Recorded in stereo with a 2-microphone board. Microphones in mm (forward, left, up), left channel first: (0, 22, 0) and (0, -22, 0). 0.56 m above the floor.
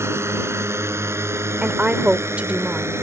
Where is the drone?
80° right.